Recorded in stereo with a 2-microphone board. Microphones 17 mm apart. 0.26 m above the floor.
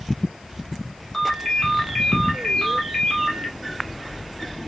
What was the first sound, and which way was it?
A ringtone, 25° left (ahead or behind).